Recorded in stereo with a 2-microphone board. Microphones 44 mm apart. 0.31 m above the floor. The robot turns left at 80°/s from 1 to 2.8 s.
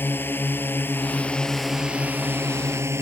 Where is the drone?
50° left; by 3.0 s 95° right.